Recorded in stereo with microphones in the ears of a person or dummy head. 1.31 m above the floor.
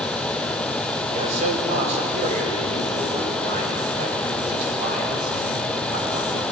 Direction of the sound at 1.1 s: 40° right (ahead or behind).